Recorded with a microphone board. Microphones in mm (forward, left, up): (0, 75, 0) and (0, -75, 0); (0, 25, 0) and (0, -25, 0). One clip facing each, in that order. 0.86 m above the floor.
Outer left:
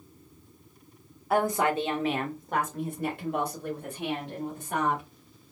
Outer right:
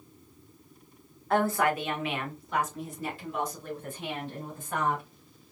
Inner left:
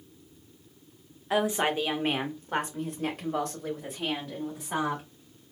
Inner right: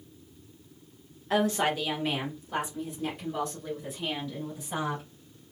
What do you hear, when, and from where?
1.3 s a woman speaking: 10° left (ahead or behind), 1.0 m; by 5.0 s 70° left (ahead or behind), 3 m